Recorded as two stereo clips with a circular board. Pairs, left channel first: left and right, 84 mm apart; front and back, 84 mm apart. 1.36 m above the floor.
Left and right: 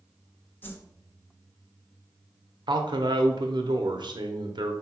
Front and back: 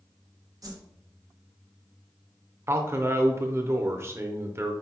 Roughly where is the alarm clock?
No alarm clock in this recording.